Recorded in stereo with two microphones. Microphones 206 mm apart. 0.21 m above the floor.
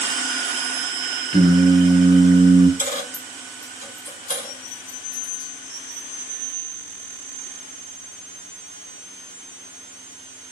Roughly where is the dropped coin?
Left.